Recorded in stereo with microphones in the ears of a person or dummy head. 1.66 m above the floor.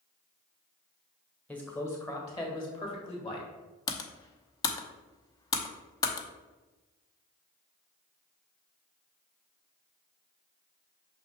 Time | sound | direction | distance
1.5 | a man speaking | 5° left (ahead or behind) | 1.3 m
3.9 | typing on a keyboard | 20° left (ahead or behind) | 0.8 m